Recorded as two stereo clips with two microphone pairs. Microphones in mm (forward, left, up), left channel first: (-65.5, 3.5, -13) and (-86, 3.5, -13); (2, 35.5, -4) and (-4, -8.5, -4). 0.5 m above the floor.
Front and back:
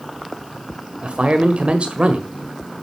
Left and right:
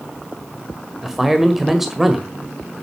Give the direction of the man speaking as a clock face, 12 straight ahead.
6 o'clock.